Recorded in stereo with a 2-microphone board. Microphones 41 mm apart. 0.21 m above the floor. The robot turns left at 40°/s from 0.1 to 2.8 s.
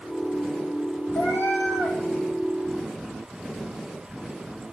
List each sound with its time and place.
1.1 s a cat meowing: 75° left, 3 m; by 2.0 s 40° left, 3 m